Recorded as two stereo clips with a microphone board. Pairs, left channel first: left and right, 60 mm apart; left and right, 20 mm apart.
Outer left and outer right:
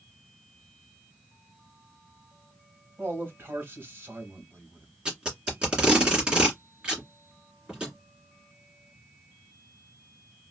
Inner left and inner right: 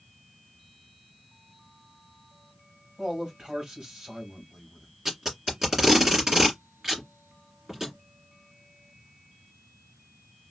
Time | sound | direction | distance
3.0 | a man speaking | 40° right (ahead or behind) | 1.9 m
5.0 | tape being pulled | 15° right (ahead or behind) | 1.9 m